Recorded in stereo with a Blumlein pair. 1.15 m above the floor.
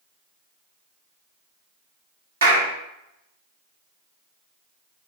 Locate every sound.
2.4 s a clap: 65° right, 1.0 m